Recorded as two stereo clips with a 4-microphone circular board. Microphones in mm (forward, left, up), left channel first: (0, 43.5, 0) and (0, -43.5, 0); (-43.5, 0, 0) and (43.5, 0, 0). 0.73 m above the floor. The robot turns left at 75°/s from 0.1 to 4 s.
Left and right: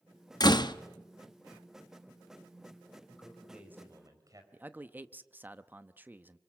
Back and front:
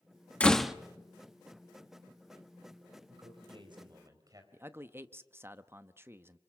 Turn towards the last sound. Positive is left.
turn(degrees=-40)